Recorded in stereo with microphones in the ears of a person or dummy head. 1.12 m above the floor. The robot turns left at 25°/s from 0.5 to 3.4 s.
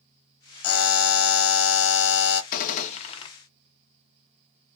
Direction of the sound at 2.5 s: 50° left (ahead or behind).